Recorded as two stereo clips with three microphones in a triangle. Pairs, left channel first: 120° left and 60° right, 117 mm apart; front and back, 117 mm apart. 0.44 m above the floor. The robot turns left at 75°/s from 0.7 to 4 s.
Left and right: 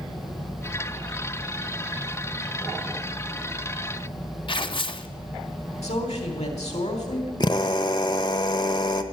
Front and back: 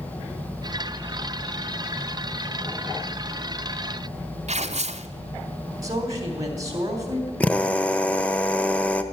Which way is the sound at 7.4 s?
80° left.